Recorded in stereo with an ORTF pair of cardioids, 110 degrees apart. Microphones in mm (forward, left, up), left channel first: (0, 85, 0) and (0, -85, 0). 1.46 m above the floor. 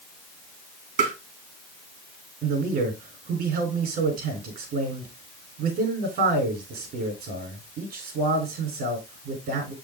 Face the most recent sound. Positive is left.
turn(degrees=-65)